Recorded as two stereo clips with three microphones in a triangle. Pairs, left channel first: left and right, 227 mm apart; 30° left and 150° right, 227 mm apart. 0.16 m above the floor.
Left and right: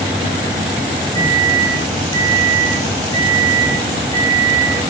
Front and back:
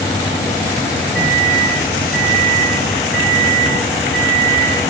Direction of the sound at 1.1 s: 165° left.